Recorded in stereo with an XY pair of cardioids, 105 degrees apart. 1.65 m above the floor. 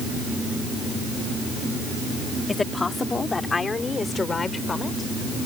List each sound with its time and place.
2.5 s a woman speaking: 25° left; by 5.1 s 30° left